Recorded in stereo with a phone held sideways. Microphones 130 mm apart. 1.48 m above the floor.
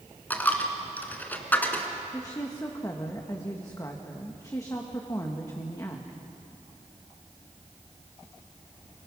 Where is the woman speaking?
25° left (ahead or behind), 1.5 m.